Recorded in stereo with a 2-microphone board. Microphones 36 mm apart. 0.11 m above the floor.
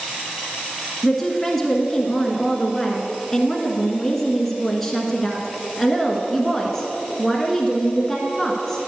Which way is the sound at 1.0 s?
5° left (ahead or behind).